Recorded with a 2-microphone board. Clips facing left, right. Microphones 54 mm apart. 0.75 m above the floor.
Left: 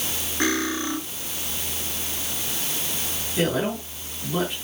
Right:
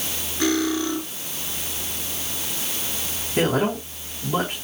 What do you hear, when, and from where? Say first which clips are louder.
0.4 s cutlery clinking: right 3 dB; 30° left (ahead or behind), 6.5 m
3.4 s a man speaking: right 3 dB; 45° right (ahead or behind), 5 m